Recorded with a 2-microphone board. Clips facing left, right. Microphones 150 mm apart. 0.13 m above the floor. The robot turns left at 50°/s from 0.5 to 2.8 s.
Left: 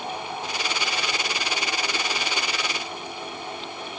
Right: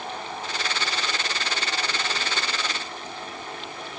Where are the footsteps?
I don't hear footsteps.